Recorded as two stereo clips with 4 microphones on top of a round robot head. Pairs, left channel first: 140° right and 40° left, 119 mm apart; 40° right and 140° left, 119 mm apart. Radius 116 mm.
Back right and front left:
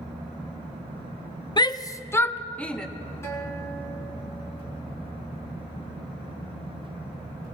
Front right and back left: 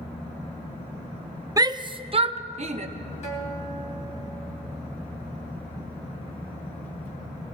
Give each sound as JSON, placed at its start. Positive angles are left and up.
{"t": 1.6, "sound": "a shout", "azimuth_deg": -175, "distance_m": 0.8}
{"t": 3.2, "sound": "a guitar", "azimuth_deg": -70, "distance_m": 3.0}